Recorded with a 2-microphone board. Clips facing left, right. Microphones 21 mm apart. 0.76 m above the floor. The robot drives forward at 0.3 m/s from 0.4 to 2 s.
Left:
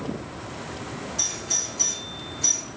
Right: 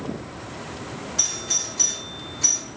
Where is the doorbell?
30° right (ahead or behind), 1.2 m.